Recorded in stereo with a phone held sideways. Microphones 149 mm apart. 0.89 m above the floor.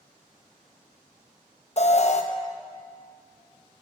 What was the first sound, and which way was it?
An alarm, 50° left (ahead or behind).